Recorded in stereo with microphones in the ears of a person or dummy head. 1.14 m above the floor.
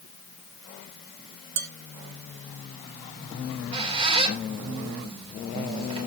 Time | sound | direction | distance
1.6 | dishes clattering | 70° right (ahead or behind) | 1.6 m
3.4 | a squeak | 30° right (ahead or behind) | 2.5 m